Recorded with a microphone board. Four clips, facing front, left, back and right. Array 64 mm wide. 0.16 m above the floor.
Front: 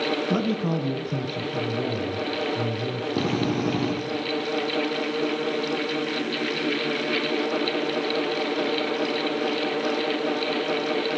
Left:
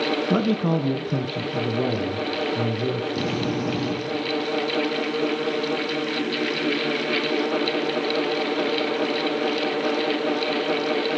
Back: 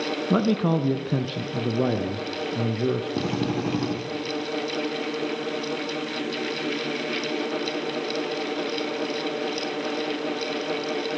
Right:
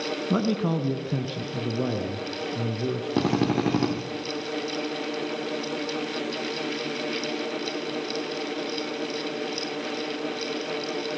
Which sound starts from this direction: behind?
A man speaking, at 0.3 s.